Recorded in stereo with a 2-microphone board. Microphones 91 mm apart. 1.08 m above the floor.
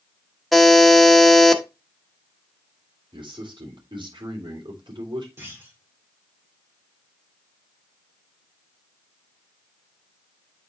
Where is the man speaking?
60° right (ahead or behind), 3 m.